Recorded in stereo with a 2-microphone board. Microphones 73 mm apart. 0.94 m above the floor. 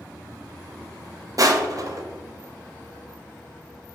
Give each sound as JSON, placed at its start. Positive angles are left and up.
{"t": 1.4, "sound": "crushing", "side_deg": -50, "distance_m": 0.5}